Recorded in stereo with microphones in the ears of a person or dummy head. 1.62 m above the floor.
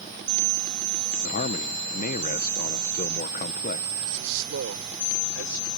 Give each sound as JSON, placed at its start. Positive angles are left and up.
{"t": 1.2, "sound": "a man speaking", "side_deg": 45}
{"t": 4.0, "sound": "a man speaking", "side_deg": -70}